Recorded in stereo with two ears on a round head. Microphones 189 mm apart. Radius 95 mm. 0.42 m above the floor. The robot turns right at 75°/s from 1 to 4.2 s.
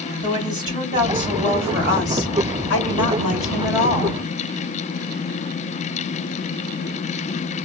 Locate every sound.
0.2 s a woman speaking: 20° right, 3 m; by 4.2 s 145° right, 3 m